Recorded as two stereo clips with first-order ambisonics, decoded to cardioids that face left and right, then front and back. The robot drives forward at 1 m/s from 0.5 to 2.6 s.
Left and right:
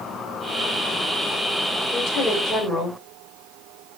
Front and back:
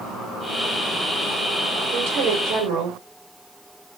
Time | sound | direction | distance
1.9 | a woman speaking | 155° left | 3.5 m